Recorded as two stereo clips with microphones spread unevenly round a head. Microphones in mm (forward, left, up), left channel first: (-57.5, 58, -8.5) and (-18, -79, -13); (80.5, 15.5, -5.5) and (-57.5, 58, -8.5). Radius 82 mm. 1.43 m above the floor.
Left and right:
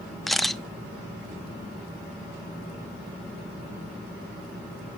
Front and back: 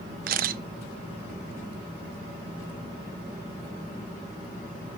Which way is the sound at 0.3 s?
165° right.